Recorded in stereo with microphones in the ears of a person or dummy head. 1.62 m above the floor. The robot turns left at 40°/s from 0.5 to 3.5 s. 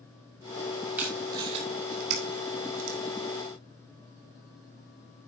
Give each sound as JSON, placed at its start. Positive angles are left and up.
{"t": 1.0, "sound": "tape being pulled", "side_deg": -5, "distance_m": 3.0}